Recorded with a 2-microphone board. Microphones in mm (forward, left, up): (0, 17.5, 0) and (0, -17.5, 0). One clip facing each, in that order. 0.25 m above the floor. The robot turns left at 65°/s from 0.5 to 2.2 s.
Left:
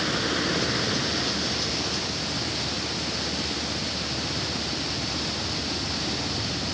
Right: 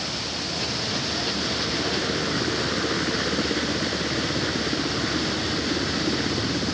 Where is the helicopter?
45° left; by 6.7 s 65° right.